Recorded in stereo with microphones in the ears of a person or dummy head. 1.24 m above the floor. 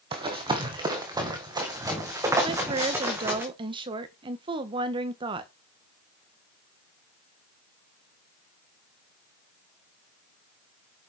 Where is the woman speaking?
25° right (ahead or behind), 1.2 m.